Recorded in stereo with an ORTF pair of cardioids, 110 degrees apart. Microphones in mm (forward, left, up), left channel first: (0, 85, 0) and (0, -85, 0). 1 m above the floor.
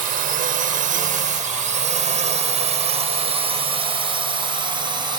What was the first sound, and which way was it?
A drone, 60° right.